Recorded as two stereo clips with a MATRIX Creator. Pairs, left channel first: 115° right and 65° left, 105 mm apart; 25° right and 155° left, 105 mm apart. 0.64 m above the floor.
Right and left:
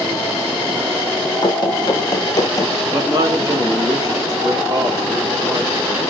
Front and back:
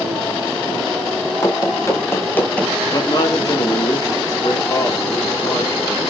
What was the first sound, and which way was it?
Running footsteps, 75° right.